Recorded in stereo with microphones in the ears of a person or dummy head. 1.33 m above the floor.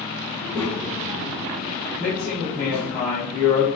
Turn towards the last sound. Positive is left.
turn(degrees=0)  # may be behind; listen again after turning